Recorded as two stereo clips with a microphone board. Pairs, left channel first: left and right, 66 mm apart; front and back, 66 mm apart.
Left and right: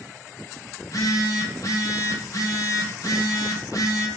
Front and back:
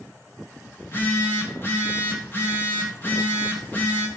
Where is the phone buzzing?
55° left, 3 m.